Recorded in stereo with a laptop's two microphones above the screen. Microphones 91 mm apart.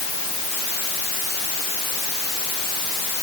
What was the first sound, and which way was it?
Only background noise.